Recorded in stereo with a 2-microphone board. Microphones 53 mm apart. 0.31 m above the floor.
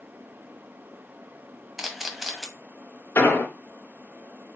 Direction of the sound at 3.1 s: 45° left (ahead or behind).